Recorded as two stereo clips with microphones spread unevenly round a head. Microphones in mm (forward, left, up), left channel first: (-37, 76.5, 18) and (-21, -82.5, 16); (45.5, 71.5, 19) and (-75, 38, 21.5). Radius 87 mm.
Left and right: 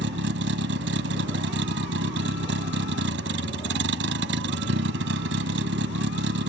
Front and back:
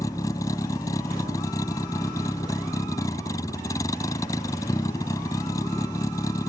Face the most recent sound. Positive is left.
turn(degrees=-55)